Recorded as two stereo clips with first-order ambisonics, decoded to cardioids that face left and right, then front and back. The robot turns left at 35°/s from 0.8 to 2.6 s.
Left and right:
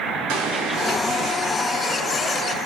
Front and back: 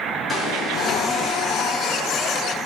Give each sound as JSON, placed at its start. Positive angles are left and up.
{"t": 0.3, "sound": "an explosion", "azimuth_deg": -70, "distance_m": 3.0}